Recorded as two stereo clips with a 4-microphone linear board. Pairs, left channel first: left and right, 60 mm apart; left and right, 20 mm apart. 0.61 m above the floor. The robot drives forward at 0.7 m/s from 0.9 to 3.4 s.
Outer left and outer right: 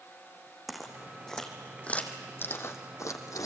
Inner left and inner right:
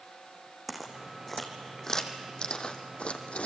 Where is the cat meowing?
No cat meowing in this recording.